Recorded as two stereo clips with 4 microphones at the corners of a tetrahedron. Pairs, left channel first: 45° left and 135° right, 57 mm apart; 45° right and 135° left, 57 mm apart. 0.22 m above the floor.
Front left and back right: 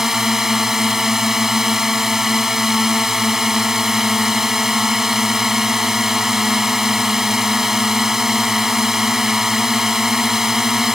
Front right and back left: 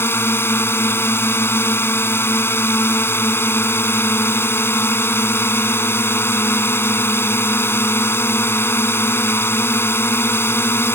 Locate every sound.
0.0 s a drone: 55° right